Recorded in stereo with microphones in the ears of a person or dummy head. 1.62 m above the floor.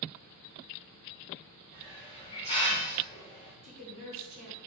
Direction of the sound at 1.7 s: 30° left (ahead or behind).